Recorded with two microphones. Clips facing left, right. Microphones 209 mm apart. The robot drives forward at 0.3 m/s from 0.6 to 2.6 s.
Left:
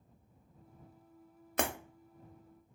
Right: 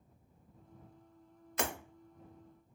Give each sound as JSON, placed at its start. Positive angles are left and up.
{"t": 1.6, "sound": "breaking glass", "side_deg": 55, "distance_m": 0.5}